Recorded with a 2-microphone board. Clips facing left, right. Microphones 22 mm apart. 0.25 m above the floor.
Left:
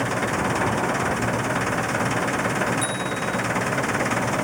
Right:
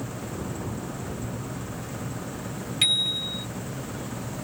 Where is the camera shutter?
I don't hear a camera shutter.